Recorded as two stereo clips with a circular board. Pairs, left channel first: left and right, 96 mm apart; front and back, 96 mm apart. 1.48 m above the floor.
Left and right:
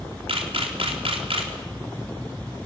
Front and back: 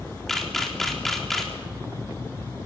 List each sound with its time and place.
0.3 s a camera shutter: 85° right, 3.5 m